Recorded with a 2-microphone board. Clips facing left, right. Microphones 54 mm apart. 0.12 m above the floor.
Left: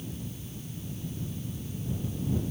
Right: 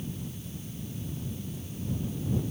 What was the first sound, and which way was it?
Only background noise.